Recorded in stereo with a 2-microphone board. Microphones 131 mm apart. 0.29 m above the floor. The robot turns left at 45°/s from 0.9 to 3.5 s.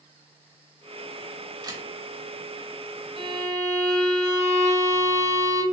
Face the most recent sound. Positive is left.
turn(degrees=-25)  # may be behind; listen again after turning